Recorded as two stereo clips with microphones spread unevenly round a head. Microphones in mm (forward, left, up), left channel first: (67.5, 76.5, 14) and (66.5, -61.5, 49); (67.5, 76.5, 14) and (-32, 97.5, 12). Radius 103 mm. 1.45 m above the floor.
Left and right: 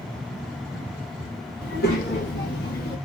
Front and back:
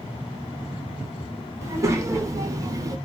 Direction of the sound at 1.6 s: 110° left.